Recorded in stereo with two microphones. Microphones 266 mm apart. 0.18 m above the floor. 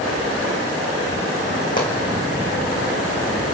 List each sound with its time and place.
1.8 s a pop: 30° left (ahead or behind), 3.5 m